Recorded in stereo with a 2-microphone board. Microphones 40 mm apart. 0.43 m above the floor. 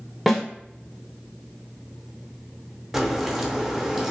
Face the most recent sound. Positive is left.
turn(degrees=-10)  # may be behind; listen again after turning